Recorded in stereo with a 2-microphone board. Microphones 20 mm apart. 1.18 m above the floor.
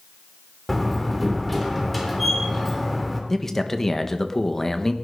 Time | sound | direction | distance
0.7 | a door slam | centre (ahead or behind) | 3 m
3.3 | a man speaking | 20° left (ahead or behind) | 1.3 m